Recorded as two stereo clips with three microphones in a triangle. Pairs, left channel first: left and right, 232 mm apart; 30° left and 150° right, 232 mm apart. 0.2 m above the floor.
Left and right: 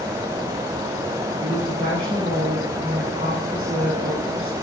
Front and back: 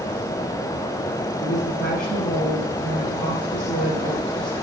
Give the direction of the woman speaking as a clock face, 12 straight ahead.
1 o'clock.